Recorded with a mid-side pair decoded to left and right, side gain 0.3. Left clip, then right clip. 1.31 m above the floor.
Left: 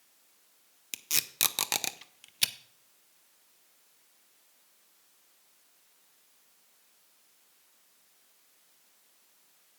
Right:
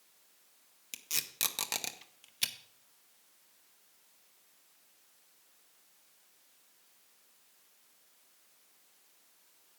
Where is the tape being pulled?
50° left, 0.7 m.